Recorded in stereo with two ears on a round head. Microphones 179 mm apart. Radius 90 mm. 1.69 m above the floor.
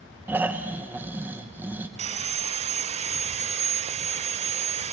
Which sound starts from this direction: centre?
Snoring, at 0.3 s.